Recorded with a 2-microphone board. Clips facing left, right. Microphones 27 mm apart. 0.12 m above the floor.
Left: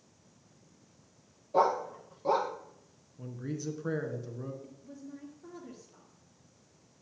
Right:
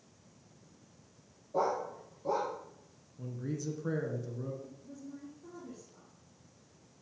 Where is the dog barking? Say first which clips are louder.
Left 5 dB; 55° left (ahead or behind), 1.1 m.